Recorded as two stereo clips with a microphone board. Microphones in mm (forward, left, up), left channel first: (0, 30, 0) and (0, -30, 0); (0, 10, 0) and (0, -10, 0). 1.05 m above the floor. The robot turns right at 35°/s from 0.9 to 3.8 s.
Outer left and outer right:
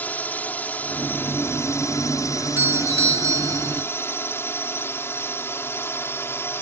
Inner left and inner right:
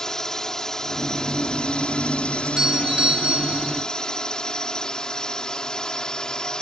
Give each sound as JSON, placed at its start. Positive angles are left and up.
{"t": 0.0, "sound": "a drone", "azimuth_deg": 35}
{"t": 2.4, "sound": "a doorbell", "azimuth_deg": -150}